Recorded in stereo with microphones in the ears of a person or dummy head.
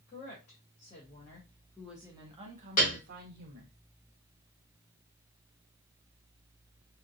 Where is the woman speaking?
45° left (ahead or behind), 1.3 m; by 3.8 s 70° right (ahead or behind), 1.1 m.